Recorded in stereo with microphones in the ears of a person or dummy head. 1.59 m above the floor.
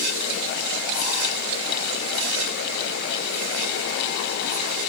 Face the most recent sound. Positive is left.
No sound to turn to.